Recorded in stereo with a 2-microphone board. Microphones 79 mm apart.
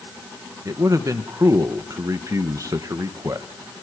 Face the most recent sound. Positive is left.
turn(degrees=-45)  # may be behind; listen again after turning